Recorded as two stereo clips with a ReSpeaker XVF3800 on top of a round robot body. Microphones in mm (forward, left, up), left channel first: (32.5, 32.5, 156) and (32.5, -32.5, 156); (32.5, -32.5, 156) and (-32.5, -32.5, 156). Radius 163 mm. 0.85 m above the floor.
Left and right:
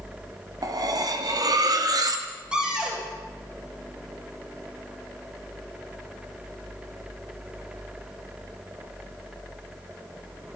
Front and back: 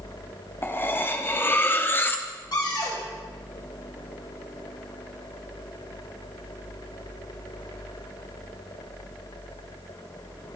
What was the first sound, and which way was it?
Cutlery clinking, 60° right.